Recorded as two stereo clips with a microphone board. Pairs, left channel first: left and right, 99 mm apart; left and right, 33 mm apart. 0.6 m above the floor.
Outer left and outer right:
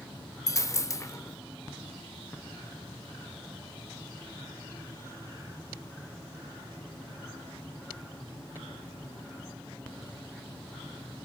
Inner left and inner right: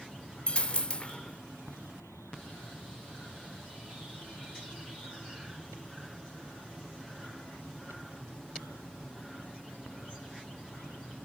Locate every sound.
0.5 s a dropped coin: 30° left (ahead or behind), 0.6 m